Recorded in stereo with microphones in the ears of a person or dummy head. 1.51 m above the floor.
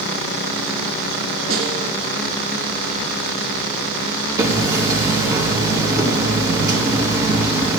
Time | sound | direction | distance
1.5 | a snare drum | 65° right (ahead or behind) | 5 m
4.4 | hammering | 15° right (ahead or behind) | 1.7 m